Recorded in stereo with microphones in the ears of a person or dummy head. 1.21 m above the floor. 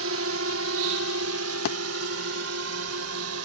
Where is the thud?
50° left (ahead or behind).